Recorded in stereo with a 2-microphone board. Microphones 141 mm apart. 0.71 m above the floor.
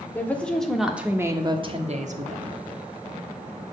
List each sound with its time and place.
0.1 s a woman speaking: 15° left (ahead or behind), 1.9 m; by 2.6 s 70° right (ahead or behind), 1.5 m